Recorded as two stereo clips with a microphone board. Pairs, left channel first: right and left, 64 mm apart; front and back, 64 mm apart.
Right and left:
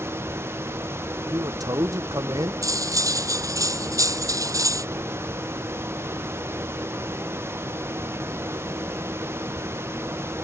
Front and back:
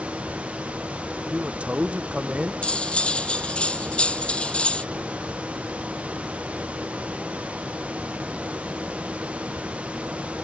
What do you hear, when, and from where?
1.3 s a man speaking: 110° left
2.6 s cutlery clinking: 70° left